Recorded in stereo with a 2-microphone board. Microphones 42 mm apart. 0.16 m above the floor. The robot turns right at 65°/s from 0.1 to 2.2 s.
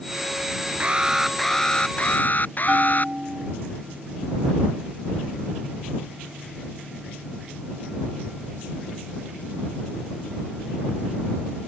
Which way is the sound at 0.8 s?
35° right.